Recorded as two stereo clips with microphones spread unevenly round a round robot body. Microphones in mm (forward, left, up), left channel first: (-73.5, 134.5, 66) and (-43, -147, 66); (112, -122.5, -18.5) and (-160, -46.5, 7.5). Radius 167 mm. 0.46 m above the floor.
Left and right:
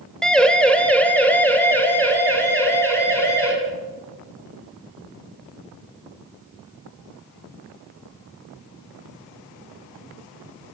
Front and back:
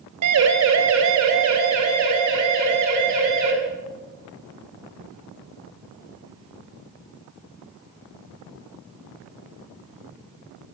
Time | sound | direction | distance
0.2 | a siren | 175° right | 3 m